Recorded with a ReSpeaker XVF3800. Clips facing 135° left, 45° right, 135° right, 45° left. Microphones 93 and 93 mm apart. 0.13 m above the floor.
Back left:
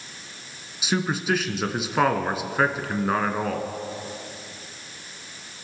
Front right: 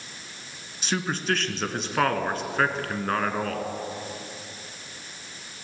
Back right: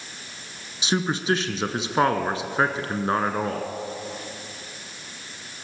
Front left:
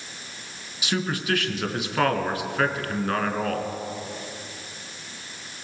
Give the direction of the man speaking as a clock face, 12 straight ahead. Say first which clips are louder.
Back left 3 dB, back right 3 dB; 5 o'clock.